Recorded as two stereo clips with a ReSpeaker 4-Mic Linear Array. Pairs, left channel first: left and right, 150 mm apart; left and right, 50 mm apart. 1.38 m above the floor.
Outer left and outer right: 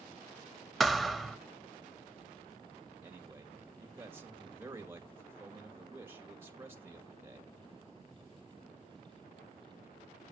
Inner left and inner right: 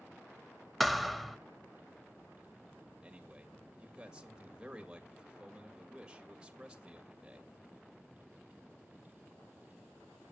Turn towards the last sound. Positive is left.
turn(degrees=-15)  # may be behind; listen again after turning